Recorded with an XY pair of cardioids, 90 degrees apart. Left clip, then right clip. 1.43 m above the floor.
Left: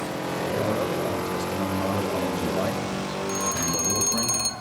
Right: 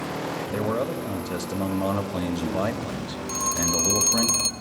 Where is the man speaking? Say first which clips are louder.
Even; 35° right, 3 m.